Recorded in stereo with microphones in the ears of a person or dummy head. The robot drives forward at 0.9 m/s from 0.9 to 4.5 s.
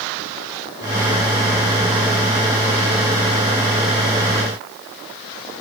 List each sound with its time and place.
Only background noise.